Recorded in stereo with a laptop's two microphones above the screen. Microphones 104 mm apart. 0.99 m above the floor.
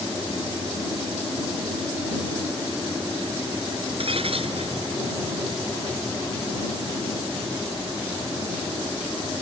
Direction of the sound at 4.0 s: 60° right (ahead or behind).